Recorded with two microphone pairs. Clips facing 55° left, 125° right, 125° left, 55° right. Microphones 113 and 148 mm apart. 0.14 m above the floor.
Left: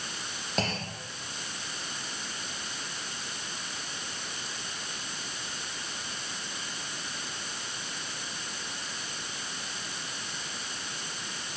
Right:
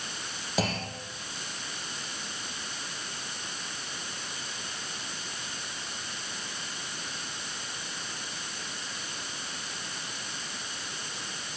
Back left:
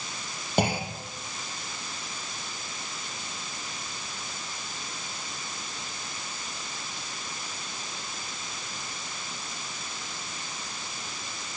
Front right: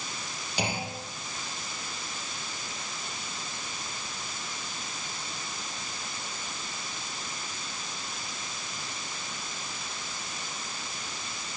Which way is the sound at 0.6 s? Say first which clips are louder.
Right 2 dB, back left 6 dB; 155° left.